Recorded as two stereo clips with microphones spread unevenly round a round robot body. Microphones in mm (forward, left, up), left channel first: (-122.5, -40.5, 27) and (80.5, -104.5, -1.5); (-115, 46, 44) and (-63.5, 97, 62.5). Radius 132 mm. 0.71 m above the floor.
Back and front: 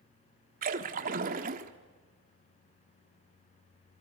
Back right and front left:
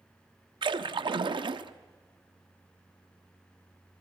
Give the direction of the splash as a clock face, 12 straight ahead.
11 o'clock.